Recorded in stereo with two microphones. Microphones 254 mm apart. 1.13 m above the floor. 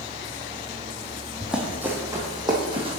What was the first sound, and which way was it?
Running footsteps, centre (ahead or behind).